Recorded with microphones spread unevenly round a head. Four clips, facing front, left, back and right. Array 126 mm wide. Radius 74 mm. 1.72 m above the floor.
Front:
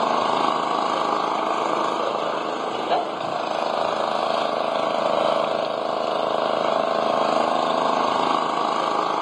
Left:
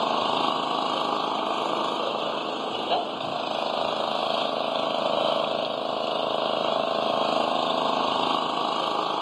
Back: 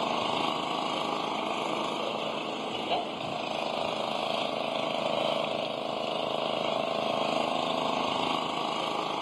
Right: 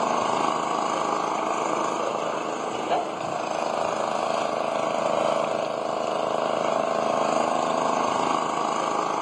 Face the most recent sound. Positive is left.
turn(degrees=-5)